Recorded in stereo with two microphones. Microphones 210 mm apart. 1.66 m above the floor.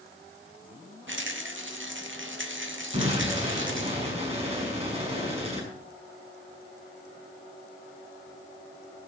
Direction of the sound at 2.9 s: 30° right (ahead or behind).